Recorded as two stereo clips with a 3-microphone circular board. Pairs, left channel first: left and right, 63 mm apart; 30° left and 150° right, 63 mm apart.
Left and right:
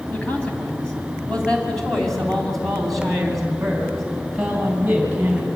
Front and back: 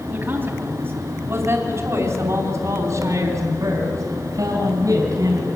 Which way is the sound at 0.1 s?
155° left.